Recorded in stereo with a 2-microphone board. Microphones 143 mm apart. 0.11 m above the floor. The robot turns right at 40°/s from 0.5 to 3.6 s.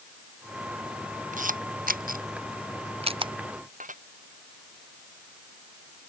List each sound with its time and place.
1.3 s a camera shutter: 65° right (ahead or behind); by 3.3 s 35° right (ahead or behind)
3.8 s dishes clattering: 65° right (ahead or behind)